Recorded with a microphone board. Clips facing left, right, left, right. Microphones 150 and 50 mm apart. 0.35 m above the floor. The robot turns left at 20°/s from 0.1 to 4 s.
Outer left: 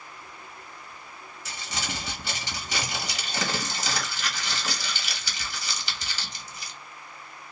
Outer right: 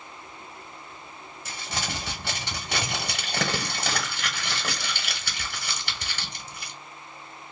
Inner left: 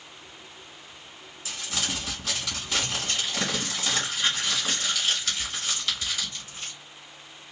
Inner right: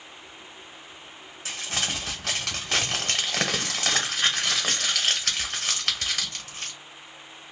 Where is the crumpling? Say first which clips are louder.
Outer right 2 dB, inner right 2 dB; 65° right, 1.3 m; by 6.7 s 115° right, 1.3 m.